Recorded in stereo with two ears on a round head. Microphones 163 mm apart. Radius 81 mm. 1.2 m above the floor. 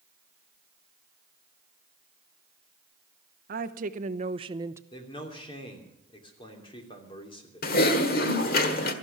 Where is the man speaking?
30° left (ahead or behind), 3 m.